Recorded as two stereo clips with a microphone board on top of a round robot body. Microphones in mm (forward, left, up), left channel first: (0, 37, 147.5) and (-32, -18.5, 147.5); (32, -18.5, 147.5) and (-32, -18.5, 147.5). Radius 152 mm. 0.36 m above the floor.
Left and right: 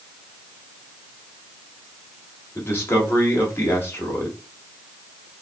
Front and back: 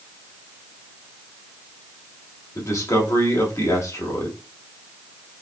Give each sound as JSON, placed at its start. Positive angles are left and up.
{"t": 2.5, "sound": "a man speaking", "azimuth_deg": 15, "distance_m": 2.0}